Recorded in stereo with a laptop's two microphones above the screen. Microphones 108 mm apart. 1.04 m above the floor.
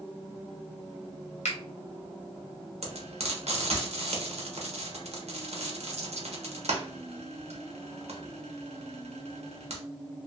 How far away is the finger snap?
About 1.0 m.